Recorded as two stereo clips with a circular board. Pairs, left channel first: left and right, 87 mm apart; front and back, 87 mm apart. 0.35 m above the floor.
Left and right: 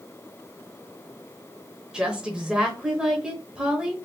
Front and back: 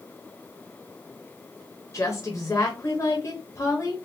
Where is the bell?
I don't hear a bell.